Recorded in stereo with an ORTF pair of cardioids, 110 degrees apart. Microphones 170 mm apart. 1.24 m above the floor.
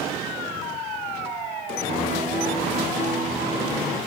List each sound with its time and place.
1.9 s a piano: 60° right, 3 m